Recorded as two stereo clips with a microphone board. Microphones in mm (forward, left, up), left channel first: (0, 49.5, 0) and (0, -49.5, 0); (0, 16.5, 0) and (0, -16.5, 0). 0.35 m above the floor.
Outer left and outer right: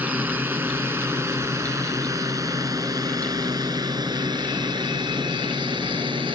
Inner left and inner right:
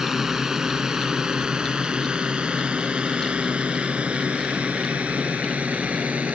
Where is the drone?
15° right (ahead or behind); by 6.4 s 55° right (ahead or behind).